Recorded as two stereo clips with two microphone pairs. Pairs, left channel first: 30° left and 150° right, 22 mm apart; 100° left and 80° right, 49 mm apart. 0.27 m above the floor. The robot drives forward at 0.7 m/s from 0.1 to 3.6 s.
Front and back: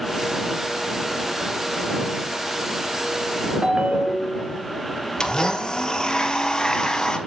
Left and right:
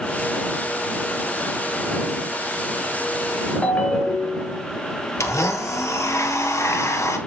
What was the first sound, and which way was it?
A ringtone, 160° left.